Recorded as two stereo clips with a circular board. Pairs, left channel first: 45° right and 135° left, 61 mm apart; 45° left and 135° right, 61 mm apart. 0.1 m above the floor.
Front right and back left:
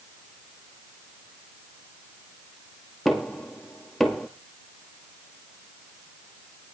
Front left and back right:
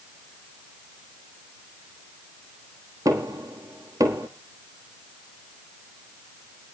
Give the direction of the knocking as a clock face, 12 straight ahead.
5 o'clock.